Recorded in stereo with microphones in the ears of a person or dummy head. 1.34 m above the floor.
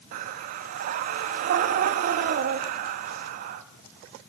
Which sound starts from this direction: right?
Breathing, at 0.1 s.